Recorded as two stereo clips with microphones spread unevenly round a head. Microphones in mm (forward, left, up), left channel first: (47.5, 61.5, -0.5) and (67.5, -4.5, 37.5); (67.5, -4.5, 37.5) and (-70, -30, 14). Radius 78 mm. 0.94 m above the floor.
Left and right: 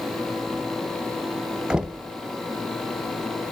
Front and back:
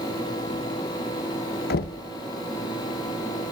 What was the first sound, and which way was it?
Knocking, 20° left.